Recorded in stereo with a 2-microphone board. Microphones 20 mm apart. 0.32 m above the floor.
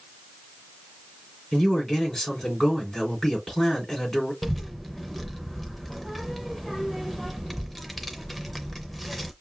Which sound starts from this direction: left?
A man speaking, at 1.5 s.